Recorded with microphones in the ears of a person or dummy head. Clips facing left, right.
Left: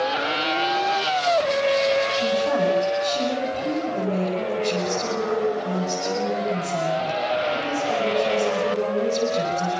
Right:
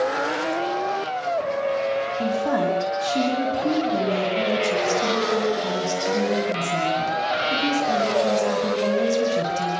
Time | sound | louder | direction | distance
2.2 | a woman speaking | left 1 dB | 75° right (ahead or behind) | 9 m